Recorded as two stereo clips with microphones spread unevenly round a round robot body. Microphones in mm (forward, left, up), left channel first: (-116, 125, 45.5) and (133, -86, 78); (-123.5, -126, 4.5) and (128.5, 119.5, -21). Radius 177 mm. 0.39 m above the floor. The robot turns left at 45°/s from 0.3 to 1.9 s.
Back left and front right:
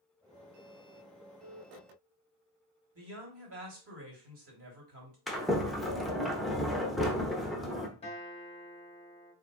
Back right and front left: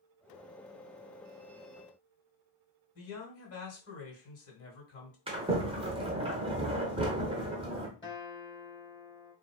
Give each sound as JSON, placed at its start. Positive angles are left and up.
{"t": 3.0, "sound": "a man speaking", "azimuth_deg": -85, "distance_m": 1.7}
{"t": 5.3, "sound": "a sliding door", "azimuth_deg": 65, "distance_m": 0.8}
{"t": 8.0, "sound": "a guitar", "azimuth_deg": 155, "distance_m": 1.5}